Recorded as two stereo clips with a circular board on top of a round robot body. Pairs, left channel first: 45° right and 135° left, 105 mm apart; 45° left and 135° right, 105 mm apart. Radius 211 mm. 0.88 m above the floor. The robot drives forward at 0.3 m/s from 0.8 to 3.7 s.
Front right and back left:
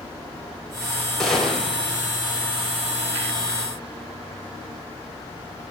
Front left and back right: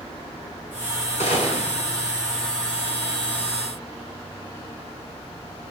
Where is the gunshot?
40° left, 4.5 m.